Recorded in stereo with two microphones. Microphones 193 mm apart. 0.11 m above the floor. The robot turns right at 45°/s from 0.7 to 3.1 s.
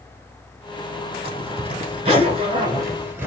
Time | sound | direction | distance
1.2 | a zipper | 30° right (ahead or behind) | 1.6 m